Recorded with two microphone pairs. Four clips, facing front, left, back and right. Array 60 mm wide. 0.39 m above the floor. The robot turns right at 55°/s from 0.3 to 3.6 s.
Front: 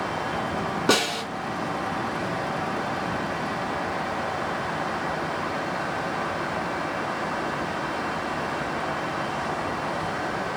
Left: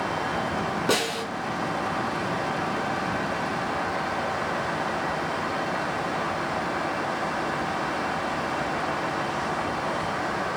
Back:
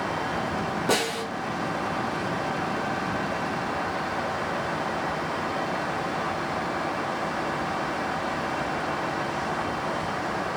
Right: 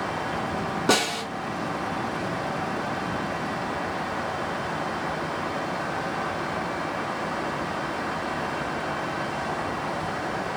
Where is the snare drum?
15° right, 1.5 m; by 1.2 s 5° left, 1.5 m.